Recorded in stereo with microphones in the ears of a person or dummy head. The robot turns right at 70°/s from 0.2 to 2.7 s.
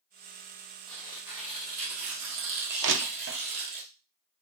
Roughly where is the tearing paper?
Behind.